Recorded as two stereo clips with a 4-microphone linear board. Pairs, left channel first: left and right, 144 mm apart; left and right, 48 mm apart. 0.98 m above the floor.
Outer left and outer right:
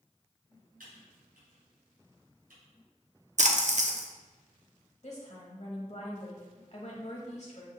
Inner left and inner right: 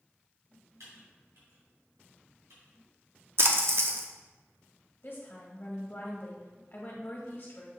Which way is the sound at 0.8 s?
80° right.